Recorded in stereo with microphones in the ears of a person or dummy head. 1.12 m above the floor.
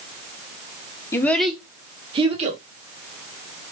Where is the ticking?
No ticking in this recording.